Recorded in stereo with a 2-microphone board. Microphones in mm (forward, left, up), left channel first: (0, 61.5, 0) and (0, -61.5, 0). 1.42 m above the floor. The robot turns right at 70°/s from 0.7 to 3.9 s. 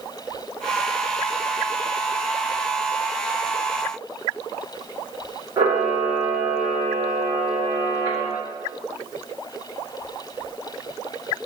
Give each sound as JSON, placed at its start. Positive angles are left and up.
{"t": 5.6, "sound": "a camera shutter", "side_deg": -30, "distance_m": 1.9}